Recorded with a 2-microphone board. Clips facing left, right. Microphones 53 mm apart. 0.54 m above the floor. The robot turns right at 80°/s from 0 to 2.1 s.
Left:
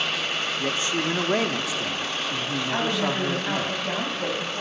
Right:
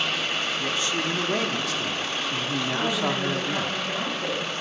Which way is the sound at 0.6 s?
25° left (ahead or behind).